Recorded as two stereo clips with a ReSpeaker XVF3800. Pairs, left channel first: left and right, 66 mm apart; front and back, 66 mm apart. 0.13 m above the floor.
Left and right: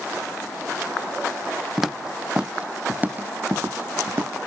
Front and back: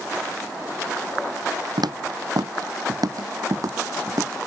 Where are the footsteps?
175° right; by 4.3 s 140° right.